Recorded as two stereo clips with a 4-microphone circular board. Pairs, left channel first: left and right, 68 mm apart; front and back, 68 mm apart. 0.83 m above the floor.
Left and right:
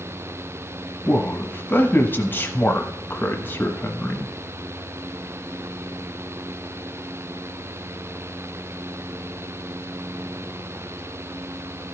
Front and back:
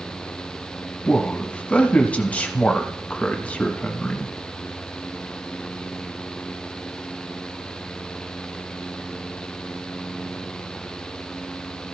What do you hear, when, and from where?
1.1 s a man speaking: 55° left, 1.0 m